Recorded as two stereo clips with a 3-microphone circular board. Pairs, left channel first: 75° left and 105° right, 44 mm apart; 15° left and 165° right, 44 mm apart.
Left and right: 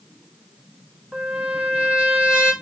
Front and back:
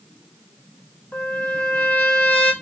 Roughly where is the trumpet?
Ahead right.